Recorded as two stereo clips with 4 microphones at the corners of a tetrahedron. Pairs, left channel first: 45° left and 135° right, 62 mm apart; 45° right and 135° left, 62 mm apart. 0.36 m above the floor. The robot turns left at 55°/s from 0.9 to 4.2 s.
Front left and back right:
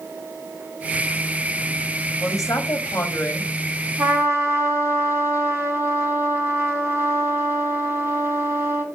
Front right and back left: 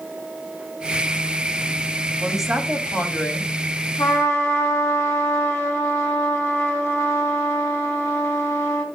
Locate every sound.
2.2 s a woman speaking: 60° left, 2.5 m; by 3.9 s 30° right, 2.5 m
4.0 s a trumpet: 75° right, 2.5 m; by 8.8 s 85° right, 2.5 m